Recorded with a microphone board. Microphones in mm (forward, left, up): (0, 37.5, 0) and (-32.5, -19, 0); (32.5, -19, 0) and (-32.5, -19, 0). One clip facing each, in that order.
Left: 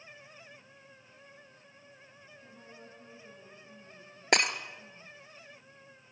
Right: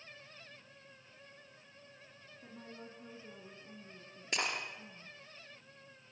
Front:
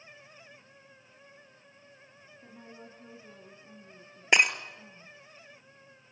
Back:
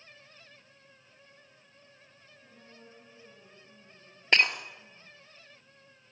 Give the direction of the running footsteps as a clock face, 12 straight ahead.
I don't hear running footsteps.